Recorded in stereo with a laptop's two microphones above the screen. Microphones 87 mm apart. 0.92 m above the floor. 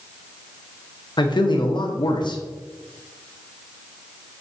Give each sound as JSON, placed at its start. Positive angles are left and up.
{"t": 1.2, "sound": "a man speaking", "side_deg": 65, "distance_m": 0.6}